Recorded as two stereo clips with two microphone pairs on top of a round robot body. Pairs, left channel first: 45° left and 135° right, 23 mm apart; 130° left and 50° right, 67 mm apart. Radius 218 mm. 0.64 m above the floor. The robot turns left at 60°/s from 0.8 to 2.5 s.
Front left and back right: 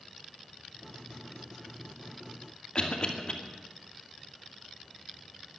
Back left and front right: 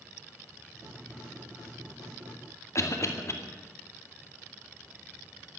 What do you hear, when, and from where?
2.8 s a cough: 90° left, 2.5 m